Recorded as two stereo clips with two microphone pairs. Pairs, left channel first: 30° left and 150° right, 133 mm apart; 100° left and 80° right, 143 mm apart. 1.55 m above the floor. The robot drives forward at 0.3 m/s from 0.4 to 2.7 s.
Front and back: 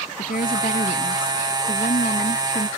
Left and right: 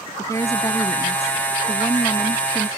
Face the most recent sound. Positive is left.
turn(degrees=30)